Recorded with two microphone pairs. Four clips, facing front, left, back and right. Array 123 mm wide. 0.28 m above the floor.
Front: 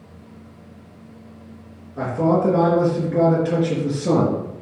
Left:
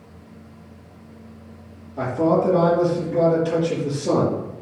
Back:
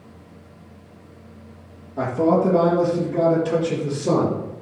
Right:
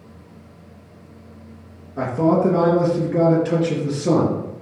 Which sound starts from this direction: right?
A man speaking, at 2.0 s.